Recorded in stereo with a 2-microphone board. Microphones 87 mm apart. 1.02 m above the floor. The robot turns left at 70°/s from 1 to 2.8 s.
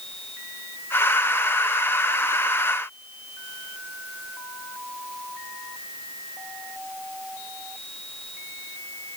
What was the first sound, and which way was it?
Only background noise.